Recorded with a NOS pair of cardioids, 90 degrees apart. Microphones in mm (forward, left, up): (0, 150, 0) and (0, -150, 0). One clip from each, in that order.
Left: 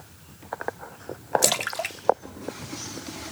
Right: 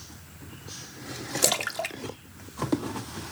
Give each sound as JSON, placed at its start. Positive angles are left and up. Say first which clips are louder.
{"t": 1.4, "sound": "a splash", "louder": "left 2 dB", "azimuth_deg": 10, "distance_m": 0.6}